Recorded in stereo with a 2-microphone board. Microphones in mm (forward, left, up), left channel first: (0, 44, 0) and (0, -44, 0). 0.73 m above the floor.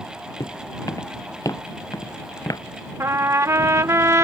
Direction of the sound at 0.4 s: 40° left (ahead or behind).